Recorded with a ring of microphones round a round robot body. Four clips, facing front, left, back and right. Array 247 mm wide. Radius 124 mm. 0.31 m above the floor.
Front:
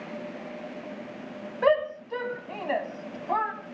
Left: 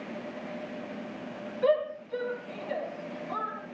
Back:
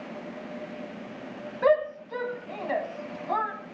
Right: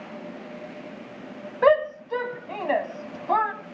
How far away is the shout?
About 2 m.